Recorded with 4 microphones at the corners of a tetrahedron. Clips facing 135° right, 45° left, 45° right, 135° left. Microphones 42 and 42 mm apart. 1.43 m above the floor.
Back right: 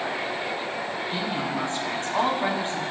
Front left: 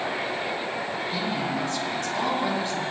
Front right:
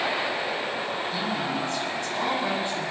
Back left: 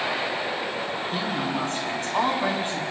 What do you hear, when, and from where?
1.1 s a woman speaking: 170° left, 9.5 m